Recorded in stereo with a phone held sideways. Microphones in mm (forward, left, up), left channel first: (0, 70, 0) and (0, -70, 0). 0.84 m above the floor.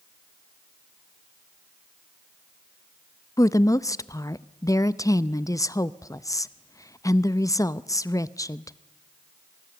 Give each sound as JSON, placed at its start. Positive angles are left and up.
{"t": 3.4, "sound": "a woman speaking", "side_deg": 25, "distance_m": 0.5}